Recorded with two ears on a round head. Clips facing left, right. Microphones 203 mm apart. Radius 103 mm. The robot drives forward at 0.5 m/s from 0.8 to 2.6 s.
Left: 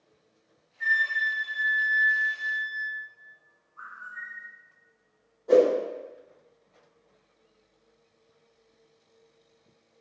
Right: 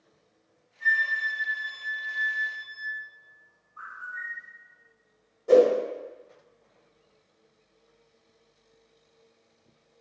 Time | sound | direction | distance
0.8 | a flute | 30° left (ahead or behind) | 0.6 m
3.8 | a bird | 10° right (ahead or behind) | 1.0 m
5.5 | a whoosh | 35° right (ahead or behind) | 1.0 m